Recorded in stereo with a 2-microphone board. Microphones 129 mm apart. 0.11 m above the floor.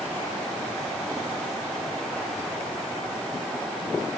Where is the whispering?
No whispering in this recording.